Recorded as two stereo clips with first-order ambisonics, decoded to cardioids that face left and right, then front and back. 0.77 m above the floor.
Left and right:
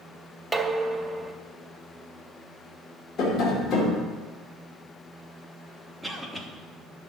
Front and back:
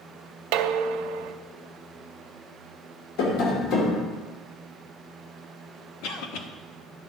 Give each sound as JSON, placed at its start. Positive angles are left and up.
{"t": 0.5, "sound": "dishes clattering", "azimuth_deg": -170, "distance_m": 0.6}
{"t": 3.2, "sound": "tapping", "azimuth_deg": 35, "distance_m": 2.5}
{"t": 6.0, "sound": "a cough", "azimuth_deg": 0, "distance_m": 1.4}